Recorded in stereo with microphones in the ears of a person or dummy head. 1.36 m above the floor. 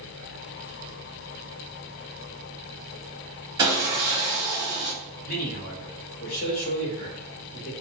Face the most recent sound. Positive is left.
turn(degrees=40)  # may be behind; listen again after turning